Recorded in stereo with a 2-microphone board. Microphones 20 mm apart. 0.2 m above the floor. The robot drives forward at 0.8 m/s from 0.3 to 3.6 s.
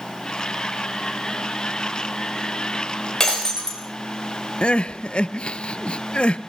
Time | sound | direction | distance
3.2 | breaking glass | 30° left (ahead or behind) | 7.5 m
4.6 | crying | 60° left (ahead or behind) | 0.9 m